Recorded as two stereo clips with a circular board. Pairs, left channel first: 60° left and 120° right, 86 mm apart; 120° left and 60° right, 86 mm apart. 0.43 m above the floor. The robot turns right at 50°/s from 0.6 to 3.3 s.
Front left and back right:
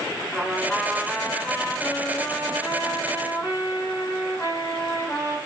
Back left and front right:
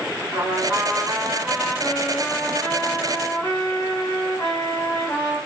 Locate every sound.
0.3 s a trumpet: 40° right, 1.0 m; by 5.4 s 95° left, 1.0 m